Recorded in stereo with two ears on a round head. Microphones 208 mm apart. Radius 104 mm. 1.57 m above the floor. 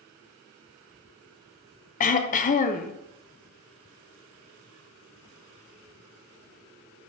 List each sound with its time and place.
2.0 s throat clearing: 35° left (ahead or behind), 0.6 m